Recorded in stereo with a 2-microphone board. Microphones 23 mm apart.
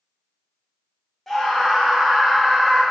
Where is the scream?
10° left (ahead or behind), 0.6 m; by 2.8 s 35° right (ahead or behind), 1.2 m.